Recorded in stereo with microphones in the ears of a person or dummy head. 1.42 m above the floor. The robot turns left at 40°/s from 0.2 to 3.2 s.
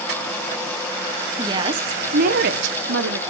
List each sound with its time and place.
1.4 s a woman speaking: 20° right, 0.6 m; by 3.2 s 95° right, 0.6 m